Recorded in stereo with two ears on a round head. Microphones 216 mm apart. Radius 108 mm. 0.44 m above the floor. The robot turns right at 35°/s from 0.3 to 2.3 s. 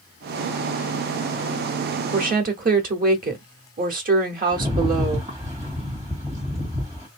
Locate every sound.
2.1 s a woman speaking: 35° right (ahead or behind), 1.1 m
4.5 s a rattle: 15° right (ahead or behind), 2.5 m